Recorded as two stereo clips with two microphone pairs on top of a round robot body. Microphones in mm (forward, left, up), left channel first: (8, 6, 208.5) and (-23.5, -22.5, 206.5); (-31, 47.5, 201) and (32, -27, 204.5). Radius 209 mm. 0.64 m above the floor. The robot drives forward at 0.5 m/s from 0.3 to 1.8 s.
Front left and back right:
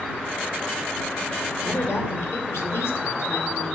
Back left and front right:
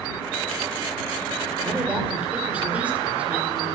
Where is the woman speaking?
25° left, 2.5 m.